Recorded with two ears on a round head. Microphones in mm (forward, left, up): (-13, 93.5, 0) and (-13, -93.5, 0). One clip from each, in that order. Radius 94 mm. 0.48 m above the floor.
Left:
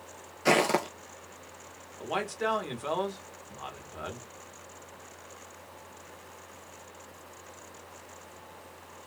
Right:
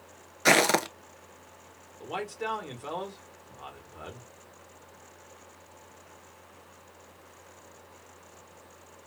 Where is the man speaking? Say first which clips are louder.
Left 3 dB; 15° left (ahead or behind), 1.2 m.